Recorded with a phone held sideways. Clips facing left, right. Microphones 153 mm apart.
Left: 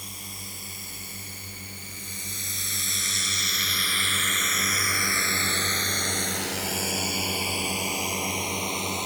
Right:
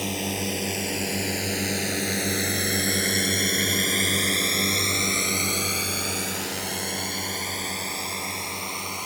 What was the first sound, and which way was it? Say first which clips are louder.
A drone: right 17 dB; 90° right.